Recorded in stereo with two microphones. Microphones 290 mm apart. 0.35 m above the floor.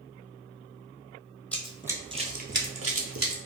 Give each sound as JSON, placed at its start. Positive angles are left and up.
{"t": 1.5, "sound": "running footsteps", "side_deg": 5, "distance_m": 0.7}